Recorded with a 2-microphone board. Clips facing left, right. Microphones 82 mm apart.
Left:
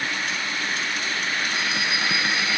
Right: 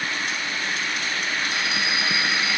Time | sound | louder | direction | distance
1.5 | a bell | even | 15° right (ahead or behind) | 3 m